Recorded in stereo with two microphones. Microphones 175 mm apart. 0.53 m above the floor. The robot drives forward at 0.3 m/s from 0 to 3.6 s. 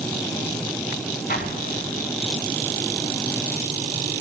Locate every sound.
1.3 s an explosion: 60° left (ahead or behind), 1.2 m; by 2.2 s 50° left (ahead or behind), 1.3 m